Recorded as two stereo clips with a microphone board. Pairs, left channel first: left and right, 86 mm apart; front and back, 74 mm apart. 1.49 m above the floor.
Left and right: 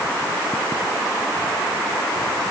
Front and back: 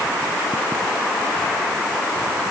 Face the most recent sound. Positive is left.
No sound to turn to.